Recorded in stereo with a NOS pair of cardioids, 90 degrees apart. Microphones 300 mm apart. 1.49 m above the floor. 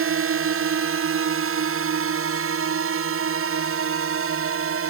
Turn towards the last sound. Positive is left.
turn(degrees=-45)